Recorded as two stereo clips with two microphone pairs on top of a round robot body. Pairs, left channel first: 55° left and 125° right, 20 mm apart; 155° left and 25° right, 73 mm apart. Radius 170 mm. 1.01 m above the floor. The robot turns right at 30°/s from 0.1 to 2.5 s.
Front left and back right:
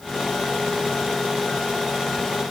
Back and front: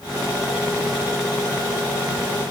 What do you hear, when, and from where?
Only background noise.